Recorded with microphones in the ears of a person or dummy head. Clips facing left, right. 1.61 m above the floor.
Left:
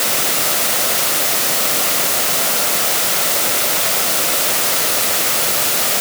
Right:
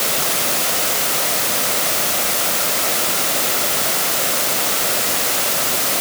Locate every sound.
Only background noise.